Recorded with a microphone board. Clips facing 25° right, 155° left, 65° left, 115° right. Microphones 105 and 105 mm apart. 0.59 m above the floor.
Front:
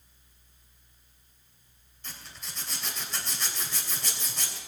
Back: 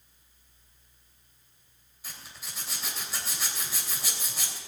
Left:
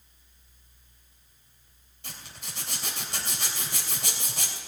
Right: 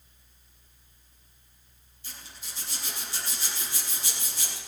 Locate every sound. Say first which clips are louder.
2.0 s a zipper: front 1 dB, left 3 dB; 75° left, 3 m